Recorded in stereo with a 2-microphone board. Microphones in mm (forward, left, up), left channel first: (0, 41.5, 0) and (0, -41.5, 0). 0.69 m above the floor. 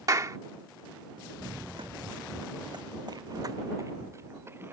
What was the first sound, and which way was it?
A clap, 40° right (ahead or behind).